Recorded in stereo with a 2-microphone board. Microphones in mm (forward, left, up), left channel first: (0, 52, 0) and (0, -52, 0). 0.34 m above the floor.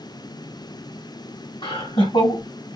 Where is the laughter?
60° left (ahead or behind), 2.0 m.